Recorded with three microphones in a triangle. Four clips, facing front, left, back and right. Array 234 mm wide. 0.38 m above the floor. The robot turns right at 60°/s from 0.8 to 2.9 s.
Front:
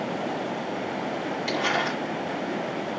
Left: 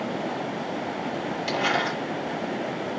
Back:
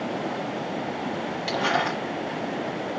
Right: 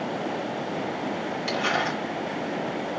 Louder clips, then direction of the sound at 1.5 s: Left 1 dB, back 2 dB; 150° left.